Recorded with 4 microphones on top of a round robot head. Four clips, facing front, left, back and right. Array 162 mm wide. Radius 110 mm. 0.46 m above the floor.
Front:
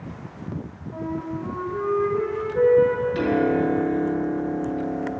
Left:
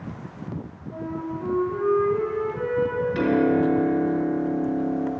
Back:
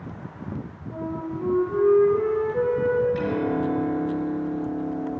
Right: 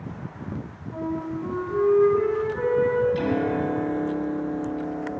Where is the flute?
155° left, 6 m.